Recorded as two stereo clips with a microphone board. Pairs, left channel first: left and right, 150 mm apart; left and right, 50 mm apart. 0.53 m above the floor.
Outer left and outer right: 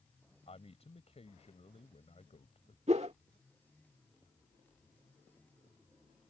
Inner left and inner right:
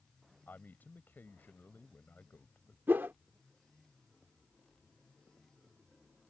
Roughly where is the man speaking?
Left.